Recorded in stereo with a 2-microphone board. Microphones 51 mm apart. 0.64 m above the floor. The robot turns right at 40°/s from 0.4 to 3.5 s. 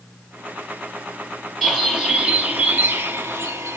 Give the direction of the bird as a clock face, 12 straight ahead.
6 o'clock.